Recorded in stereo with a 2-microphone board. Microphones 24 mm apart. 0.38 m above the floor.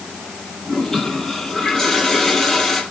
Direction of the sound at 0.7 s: 25° left (ahead or behind).